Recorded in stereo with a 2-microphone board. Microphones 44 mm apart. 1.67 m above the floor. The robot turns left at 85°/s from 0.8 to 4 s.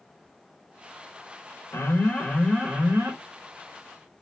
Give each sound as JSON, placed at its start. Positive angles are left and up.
{"t": 1.7, "sound": "an alarm", "azimuth_deg": 70, "distance_m": 5.0}